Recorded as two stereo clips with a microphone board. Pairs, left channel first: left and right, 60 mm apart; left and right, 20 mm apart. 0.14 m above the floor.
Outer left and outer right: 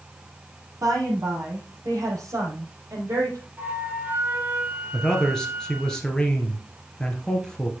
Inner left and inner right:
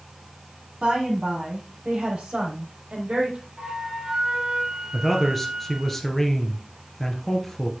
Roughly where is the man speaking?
Centre.